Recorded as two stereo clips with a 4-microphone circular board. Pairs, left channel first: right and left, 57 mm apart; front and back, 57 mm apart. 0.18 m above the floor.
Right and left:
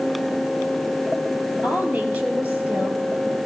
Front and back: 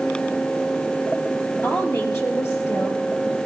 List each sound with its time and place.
1.6 s a woman speaking: 30° left, 5 m